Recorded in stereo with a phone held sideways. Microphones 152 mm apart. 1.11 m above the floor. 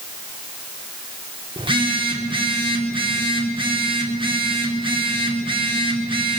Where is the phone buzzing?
35° right (ahead or behind), 4 m.